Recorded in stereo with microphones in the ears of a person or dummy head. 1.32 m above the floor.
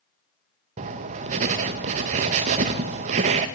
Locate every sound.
0.8 s writing: 30° right (ahead or behind), 0.6 m